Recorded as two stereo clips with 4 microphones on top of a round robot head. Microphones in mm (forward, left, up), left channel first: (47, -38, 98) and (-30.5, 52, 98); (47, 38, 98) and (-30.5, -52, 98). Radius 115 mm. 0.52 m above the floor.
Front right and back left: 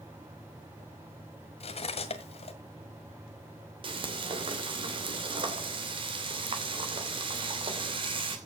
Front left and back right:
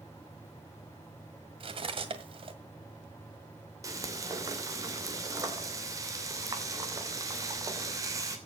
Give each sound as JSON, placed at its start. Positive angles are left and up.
{"t": 1.6, "sound": "cutlery clinking", "azimuth_deg": -85, "distance_m": 1.8}
{"t": 3.8, "sound": "frying", "azimuth_deg": 170, "distance_m": 2.5}